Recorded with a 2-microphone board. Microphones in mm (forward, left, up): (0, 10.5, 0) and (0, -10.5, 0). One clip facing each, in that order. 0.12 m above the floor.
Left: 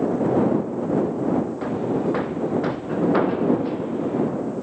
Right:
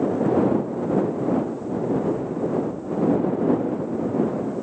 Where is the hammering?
85° left.